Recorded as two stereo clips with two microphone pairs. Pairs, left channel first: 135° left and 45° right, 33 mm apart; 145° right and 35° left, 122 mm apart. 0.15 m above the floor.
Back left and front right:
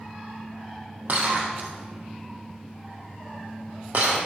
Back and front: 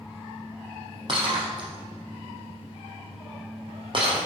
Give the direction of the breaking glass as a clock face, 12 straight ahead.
12 o'clock.